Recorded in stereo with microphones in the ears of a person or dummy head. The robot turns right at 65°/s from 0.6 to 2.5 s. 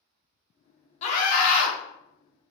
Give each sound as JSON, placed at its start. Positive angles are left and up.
{"t": 1.0, "sound": "a scream", "azimuth_deg": 45, "distance_m": 1.4}